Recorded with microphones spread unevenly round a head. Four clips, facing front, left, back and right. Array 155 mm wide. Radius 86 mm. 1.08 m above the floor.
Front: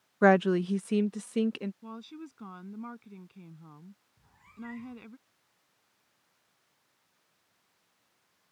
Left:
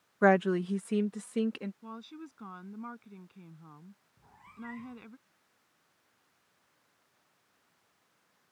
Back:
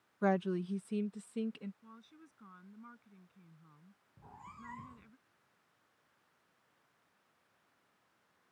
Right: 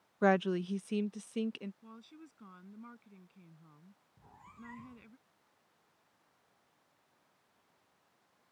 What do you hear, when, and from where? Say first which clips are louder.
0.2 s a woman speaking: left 5 dB, front 10 dB; 10° left; by 1.7 s 15° left
1.8 s a woman speaking: left 9 dB, front 14 dB; 20° left
4.2 s a cat meowing: left 6 dB, front 4 dB; straight behind